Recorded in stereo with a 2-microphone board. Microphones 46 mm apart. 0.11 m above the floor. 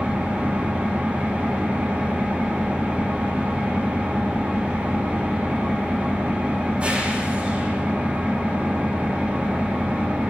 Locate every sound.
0.0 s an engine running: 30° right (ahead or behind), 7 m